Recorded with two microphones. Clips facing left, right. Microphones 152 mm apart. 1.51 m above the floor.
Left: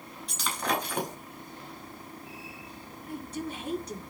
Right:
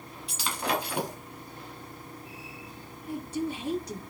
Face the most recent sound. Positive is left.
turn(degrees=-10)  # may be behind; listen again after turning